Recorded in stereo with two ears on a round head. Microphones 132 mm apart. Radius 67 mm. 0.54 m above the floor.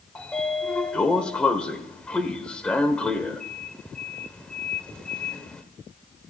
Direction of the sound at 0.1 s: 5° left (ahead or behind).